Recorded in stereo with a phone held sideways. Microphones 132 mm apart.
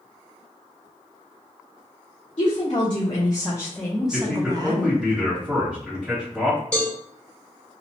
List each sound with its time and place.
2.4 s a woman speaking: 50° left (ahead or behind), 1.3 m; by 4.9 s 40° right (ahead or behind), 0.8 m
4.1 s a man speaking: 5° right (ahead or behind), 1.0 m
6.7 s a cowbell: 10° left (ahead or behind), 1.2 m